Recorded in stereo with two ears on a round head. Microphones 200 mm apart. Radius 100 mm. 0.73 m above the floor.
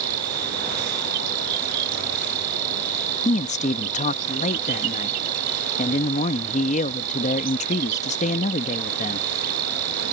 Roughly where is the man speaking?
Left.